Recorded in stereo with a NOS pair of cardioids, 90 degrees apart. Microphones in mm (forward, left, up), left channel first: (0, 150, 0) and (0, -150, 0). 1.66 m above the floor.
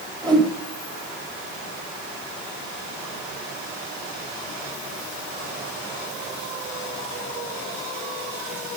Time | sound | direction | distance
0.2 | a whoosh | 15° right | 1.8 m